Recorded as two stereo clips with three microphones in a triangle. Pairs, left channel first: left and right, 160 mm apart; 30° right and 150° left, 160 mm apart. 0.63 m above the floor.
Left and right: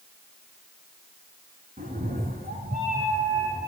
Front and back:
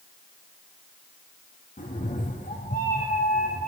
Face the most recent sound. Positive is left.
turn(degrees=-65)